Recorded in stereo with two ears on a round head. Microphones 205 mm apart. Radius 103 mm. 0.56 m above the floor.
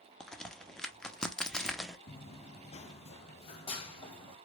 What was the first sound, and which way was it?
A crack, 5° left (ahead or behind).